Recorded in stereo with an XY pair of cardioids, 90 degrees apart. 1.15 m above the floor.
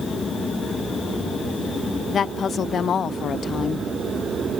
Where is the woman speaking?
60° left, 0.6 m.